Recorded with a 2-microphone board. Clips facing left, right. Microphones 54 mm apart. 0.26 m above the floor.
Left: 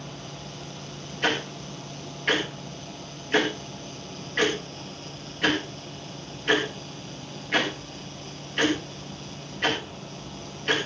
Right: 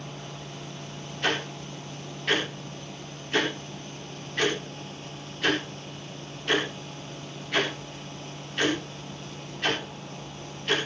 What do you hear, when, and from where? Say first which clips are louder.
1.2 s ticking: left 2 dB; 35° left (ahead or behind), 5 m